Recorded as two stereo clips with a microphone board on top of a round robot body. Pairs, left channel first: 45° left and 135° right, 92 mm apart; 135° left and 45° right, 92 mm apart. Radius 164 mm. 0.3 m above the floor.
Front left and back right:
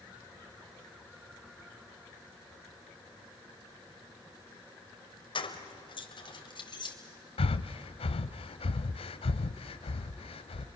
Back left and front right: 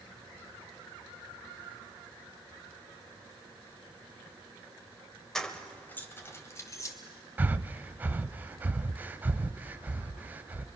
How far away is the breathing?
About 0.5 m.